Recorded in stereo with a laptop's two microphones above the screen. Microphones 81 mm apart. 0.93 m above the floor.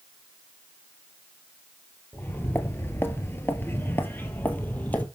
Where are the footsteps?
25° left (ahead or behind), 1.1 m; by 5.1 s 20° left (ahead or behind), 1.4 m.